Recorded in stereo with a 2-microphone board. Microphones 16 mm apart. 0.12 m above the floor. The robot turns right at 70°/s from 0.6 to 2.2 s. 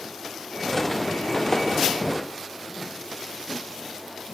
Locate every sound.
1.5 s tapping: 35° left (ahead or behind), 5.5 m; by 1.6 s 45° left (ahead or behind), 5.5 m